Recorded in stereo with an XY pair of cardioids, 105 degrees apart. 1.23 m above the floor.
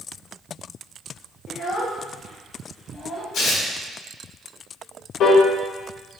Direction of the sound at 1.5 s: 60° left.